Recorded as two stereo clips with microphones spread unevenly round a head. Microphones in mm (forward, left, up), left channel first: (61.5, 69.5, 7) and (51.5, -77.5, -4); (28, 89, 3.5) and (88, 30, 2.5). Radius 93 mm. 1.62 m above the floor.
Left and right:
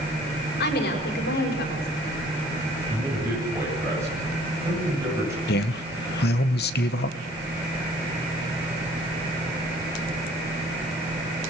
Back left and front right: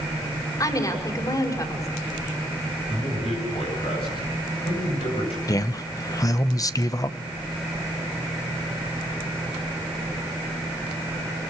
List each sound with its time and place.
0.6 s a woman speaking: 90° left, 5.5 m
2.9 s a man speaking: 170° right, 9 m
5.5 s a man speaking: 90° left, 1.4 m